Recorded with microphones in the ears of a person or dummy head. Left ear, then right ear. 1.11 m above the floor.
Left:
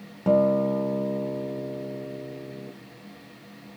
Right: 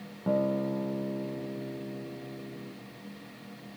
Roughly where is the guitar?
Left.